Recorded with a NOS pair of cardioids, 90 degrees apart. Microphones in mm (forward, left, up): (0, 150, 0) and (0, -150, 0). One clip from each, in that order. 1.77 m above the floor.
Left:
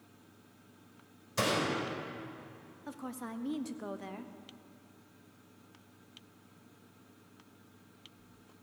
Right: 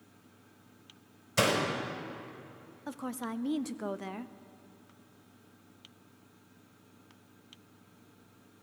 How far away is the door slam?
About 4.5 m.